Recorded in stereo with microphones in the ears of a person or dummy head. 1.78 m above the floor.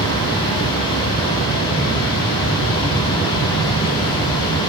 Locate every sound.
0.0 s a fan: 25° left (ahead or behind), 2.5 m